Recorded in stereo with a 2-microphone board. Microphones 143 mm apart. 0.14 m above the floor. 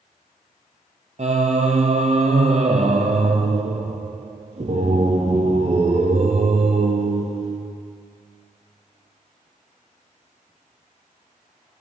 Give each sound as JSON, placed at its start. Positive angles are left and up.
{"t": 1.2, "sound": "singing", "side_deg": -55, "distance_m": 0.9}